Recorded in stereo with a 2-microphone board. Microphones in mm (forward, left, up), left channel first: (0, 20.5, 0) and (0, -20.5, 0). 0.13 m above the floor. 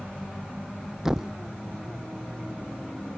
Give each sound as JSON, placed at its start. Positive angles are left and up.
{"t": 1.1, "sound": "a thud", "side_deg": -10}